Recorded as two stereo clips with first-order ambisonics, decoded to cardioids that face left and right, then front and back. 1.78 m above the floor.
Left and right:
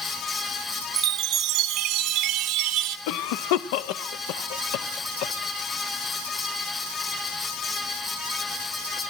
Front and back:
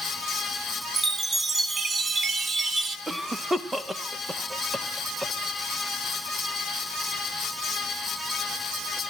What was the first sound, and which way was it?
A chime, 110° right.